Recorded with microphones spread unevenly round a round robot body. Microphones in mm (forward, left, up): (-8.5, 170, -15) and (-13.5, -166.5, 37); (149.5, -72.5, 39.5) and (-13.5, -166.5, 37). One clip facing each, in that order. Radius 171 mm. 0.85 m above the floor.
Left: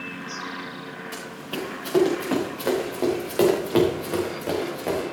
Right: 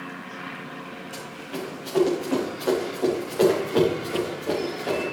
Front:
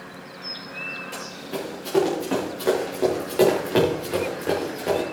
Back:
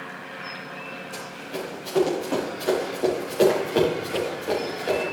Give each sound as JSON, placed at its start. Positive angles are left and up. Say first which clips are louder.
{"t": 1.1, "sound": "running footsteps", "louder": "left 2 dB, front 3 dB", "azimuth_deg": 65, "distance_m": 5.0}